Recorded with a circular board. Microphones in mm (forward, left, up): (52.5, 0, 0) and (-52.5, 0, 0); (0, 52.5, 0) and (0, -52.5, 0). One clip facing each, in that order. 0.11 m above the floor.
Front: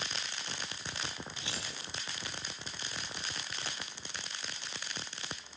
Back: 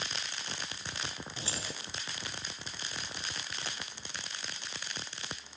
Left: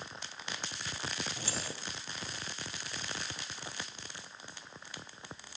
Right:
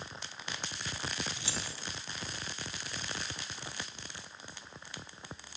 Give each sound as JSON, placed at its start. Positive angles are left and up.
{"t": 1.4, "sound": "keys jangling", "azimuth_deg": 130, "distance_m": 1.8}